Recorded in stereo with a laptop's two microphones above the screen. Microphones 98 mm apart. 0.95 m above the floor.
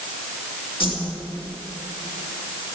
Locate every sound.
0.8 s a whoosh: 65° left (ahead or behind), 2.5 m